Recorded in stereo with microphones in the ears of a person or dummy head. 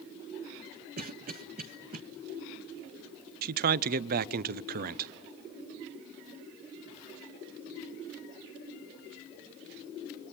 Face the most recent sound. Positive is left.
turn(degrees=-50)  # may be behind; listen again after turning